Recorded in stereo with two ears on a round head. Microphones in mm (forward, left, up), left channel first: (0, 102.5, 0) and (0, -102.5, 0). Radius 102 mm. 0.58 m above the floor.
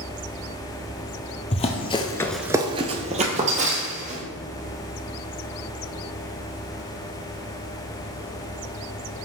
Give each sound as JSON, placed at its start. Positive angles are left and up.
{"t": 1.5, "sound": "running footsteps", "side_deg": 30, "distance_m": 1.2}